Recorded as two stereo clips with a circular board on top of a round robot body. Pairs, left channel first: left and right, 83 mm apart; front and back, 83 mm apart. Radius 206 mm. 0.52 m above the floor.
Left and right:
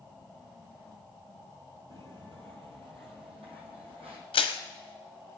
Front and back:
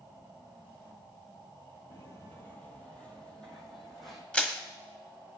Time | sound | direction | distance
1.9 | footsteps | 50° right | 1.0 m
4.3 | crushing | 75° left | 1.0 m